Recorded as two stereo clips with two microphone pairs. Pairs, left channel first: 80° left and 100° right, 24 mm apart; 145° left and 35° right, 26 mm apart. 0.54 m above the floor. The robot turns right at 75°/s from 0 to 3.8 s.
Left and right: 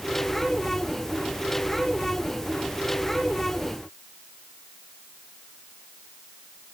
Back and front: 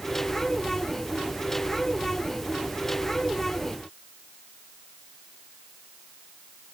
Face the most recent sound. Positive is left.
No sound to turn to.